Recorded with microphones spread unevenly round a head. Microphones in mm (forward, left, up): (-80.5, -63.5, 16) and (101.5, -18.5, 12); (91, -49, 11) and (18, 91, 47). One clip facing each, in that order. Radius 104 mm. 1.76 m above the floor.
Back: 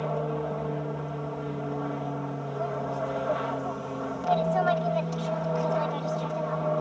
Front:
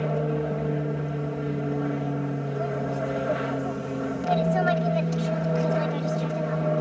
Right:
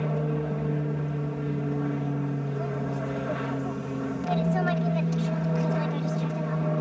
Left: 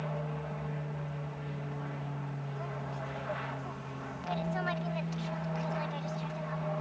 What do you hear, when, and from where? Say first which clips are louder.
0.0 s an aircraft: front 3 dB, right 10 dB; 50° right